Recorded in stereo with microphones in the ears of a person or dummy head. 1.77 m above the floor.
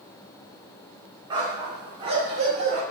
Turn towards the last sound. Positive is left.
turn(degrees=-40)  # may be behind; listen again after turning